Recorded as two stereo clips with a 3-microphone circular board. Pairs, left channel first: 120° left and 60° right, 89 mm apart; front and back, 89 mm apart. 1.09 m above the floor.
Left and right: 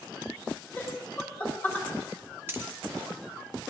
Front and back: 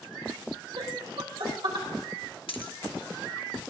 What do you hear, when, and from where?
0.8 s laughter: 170° right, 4.5 m
2.5 s a dropped coin: 5° left, 1.1 m